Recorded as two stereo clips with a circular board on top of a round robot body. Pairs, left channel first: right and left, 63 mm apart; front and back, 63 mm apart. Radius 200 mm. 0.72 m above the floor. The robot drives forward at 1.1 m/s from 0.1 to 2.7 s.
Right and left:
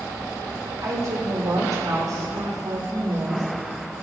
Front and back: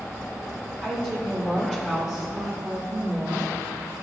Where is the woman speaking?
70° left, 3.5 m; by 3.5 s 105° left, 3.5 m.